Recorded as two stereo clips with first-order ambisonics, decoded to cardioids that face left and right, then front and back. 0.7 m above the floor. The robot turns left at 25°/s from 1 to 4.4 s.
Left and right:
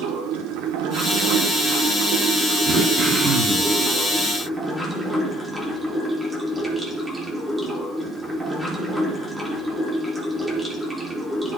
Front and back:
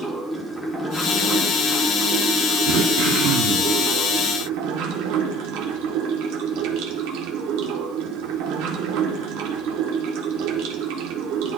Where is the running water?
95° right, 1.1 m; by 11.6 s straight behind, 1.1 m.